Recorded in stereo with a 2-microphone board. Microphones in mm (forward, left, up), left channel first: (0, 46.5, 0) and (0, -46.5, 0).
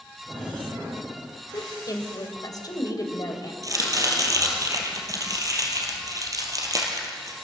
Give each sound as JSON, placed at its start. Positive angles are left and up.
{"t": 1.5, "sound": "a woman speaking", "side_deg": 45, "distance_m": 2.5}
{"t": 3.6, "sound": "chopping", "side_deg": -40, "distance_m": 3.0}